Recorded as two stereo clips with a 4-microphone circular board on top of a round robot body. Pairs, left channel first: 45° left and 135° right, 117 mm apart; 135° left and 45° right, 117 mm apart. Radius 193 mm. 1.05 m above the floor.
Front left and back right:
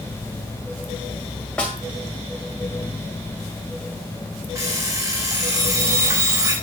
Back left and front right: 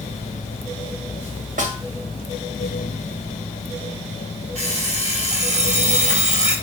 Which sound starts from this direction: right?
An alarm clock, at 4.5 s.